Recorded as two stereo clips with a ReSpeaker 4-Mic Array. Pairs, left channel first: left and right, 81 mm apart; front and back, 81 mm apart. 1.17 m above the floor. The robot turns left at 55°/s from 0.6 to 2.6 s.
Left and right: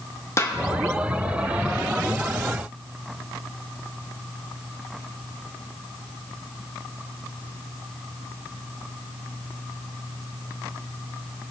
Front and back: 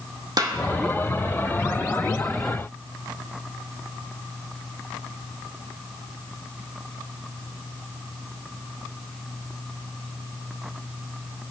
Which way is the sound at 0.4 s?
145° left.